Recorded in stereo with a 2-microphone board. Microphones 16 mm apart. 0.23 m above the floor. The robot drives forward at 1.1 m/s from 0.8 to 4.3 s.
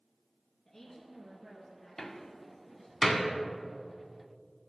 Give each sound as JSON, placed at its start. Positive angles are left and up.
{"t": 0.7, "sound": "a woman speaking", "side_deg": 25, "distance_m": 2.5}
{"t": 2.0, "sound": "a door slam", "side_deg": 25, "distance_m": 0.7}